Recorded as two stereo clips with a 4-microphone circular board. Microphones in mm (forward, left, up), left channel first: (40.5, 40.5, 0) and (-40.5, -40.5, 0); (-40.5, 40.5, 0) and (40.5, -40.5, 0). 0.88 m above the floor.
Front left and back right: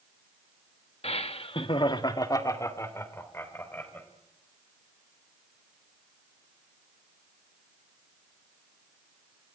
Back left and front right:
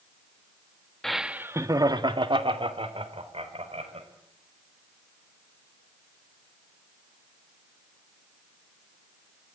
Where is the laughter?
50° left, 1.2 m; by 4.1 s 30° right, 4 m.